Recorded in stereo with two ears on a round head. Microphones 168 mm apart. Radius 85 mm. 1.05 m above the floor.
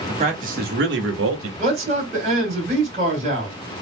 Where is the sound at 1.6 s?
35° right (ahead or behind), 2.5 m.